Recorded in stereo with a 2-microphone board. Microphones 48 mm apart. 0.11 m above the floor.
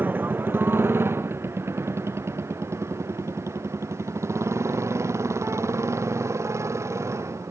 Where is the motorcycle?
40° right (ahead or behind); by 7.5 s 85° right.